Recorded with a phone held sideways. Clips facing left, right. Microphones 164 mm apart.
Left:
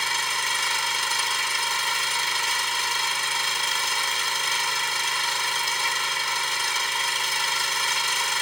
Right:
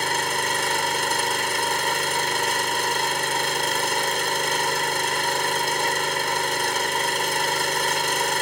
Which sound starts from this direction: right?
An engine running, at 0.0 s.